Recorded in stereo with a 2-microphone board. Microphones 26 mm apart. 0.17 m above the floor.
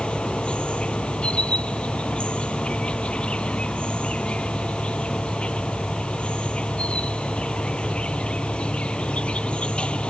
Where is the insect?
40° left (ahead or behind).